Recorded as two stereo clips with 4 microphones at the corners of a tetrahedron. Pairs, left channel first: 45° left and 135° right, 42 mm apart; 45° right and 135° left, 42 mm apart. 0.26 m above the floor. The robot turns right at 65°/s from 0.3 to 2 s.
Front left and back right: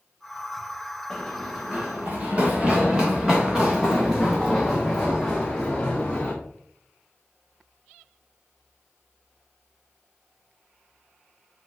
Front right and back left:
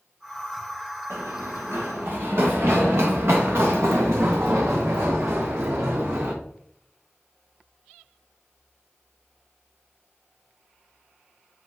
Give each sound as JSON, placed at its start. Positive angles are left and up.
{"t": 1.1, "sound": "running footsteps", "azimuth_deg": 120, "distance_m": 3.0}